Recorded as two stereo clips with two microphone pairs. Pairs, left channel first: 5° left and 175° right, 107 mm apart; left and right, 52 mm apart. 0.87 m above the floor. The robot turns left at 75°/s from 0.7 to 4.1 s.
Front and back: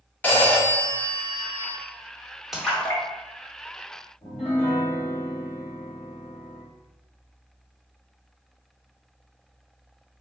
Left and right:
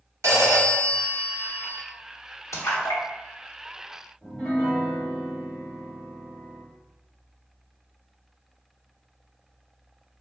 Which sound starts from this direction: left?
A splash, at 2.5 s.